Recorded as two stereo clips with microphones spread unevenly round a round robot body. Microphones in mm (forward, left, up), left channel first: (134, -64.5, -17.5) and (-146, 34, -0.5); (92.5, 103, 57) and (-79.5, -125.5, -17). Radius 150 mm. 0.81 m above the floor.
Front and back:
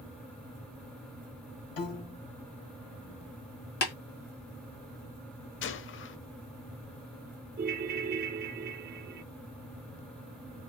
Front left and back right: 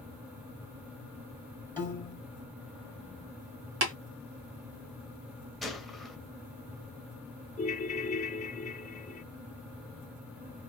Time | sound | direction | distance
1.8 | a piano | 35° right | 2.5 m
3.8 | tapping | 75° right | 1.9 m
5.6 | a gunshot | 15° right | 0.6 m
7.6 | a ringtone | 105° left | 0.5 m